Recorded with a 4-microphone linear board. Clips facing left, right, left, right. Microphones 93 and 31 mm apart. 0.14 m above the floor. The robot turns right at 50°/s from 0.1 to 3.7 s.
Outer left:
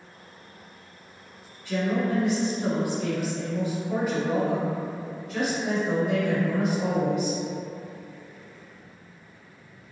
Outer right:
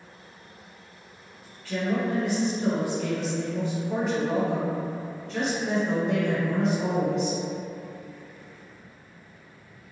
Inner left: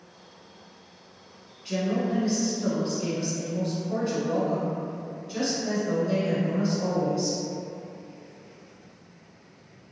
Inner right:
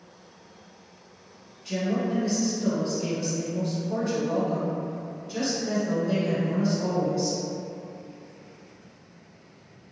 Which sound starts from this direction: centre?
A woman speaking, at 1.6 s.